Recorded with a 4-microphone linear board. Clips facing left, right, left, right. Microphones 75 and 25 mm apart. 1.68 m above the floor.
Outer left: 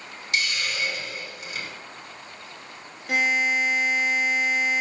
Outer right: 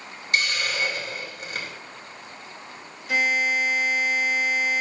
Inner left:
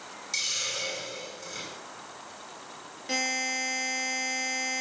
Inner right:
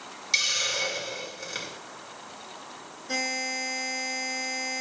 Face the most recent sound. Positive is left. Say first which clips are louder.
# even, even
turn(degrees=50)  # may be behind; listen again after turning